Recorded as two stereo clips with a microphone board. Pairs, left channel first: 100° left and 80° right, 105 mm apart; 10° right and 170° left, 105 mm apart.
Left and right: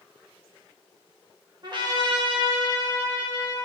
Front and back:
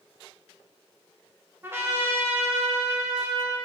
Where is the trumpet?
120° right, 1.5 m.